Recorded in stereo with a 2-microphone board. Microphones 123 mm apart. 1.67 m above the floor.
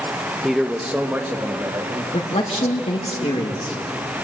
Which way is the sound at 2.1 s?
60° left (ahead or behind).